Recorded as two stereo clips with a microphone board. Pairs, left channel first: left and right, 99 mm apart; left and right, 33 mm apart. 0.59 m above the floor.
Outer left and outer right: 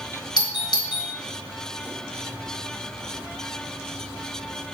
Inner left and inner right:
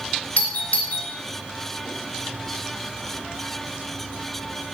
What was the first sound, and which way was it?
A doorbell, 50° left (ahead or behind).